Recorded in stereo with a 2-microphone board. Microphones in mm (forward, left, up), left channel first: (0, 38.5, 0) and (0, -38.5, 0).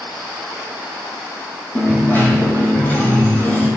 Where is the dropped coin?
25° left (ahead or behind), 1.9 m.